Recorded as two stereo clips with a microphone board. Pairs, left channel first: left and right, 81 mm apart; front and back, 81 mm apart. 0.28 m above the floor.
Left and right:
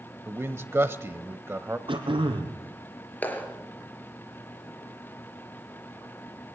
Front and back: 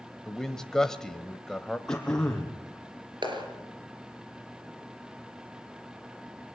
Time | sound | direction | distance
0.3 | a man speaking | 80° right | 0.9 m
1.9 | throat clearing | 80° right | 3.5 m
3.2 | a clap | 160° left | 4 m